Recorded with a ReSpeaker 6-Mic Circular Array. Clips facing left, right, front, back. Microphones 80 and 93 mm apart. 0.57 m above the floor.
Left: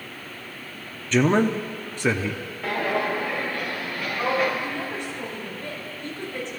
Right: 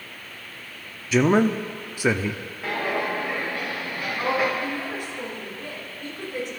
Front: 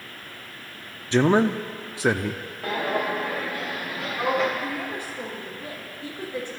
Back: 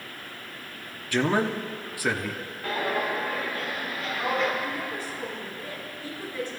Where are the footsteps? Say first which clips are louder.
Left 1 dB, front 2 dB; 5° right, 6 m; by 4.5 s 15° right, 4 m.